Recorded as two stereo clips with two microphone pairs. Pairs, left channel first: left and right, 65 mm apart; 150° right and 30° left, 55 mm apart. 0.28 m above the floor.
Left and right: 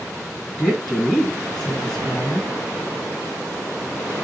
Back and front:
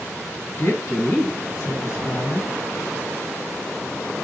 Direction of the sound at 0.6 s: 175° left.